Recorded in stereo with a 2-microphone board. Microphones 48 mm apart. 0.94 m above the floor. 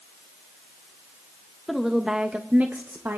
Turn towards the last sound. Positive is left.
turn(degrees=-55)  # may be behind; listen again after turning